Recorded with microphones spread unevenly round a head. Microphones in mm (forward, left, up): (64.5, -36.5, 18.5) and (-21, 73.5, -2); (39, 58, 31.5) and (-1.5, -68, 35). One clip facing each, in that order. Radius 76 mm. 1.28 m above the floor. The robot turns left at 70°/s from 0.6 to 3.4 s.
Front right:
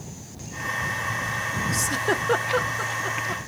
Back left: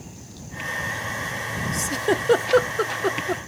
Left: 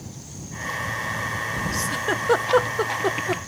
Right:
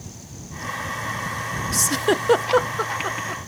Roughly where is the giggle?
Behind right.